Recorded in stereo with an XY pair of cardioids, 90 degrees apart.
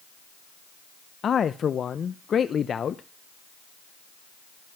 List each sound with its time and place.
1.2 s a man speaking: 55° left, 0.6 m